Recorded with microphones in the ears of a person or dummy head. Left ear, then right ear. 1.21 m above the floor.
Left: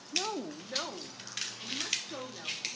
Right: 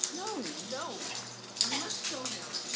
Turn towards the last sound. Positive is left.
turn(degrees=-10)  # may be behind; listen again after turning